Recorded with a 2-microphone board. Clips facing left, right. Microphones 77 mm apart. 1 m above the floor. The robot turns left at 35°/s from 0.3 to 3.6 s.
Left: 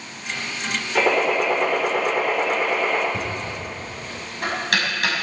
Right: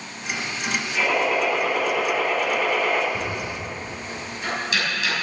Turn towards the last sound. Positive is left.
turn(degrees=60)  # may be behind; listen again after turning